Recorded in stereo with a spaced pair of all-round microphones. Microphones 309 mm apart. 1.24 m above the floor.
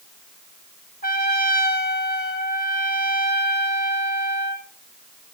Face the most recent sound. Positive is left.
turn(degrees=30)  # may be behind; listen again after turning